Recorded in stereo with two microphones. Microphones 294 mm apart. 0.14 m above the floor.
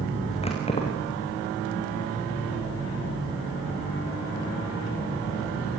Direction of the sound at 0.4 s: 20° left (ahead or behind).